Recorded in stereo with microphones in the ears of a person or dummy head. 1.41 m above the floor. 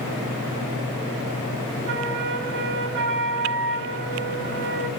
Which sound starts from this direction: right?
A flute, at 1.9 s.